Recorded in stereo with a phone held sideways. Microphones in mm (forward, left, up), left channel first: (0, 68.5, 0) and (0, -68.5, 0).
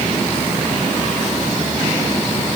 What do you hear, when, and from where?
Only background noise.